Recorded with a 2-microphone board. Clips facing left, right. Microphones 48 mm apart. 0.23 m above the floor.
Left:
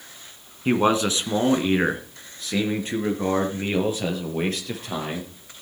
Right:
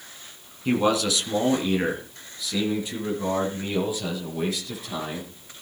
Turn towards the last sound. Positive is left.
turn(degrees=50)  # may be behind; listen again after turning